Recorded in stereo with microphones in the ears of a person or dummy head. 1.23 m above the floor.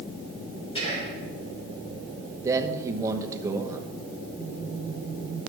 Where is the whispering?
30° left (ahead or behind), 5 m.